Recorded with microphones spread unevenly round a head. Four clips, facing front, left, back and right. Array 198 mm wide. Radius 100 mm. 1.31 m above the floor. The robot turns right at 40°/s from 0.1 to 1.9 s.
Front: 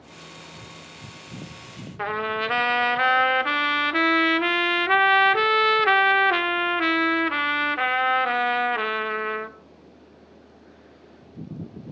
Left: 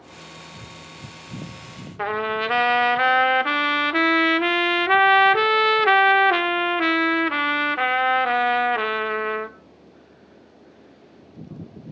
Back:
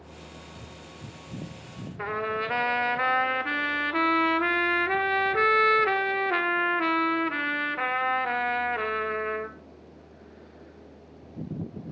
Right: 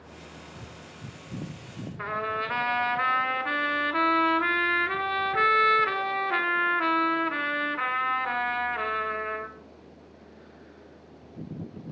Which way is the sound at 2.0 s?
65° left.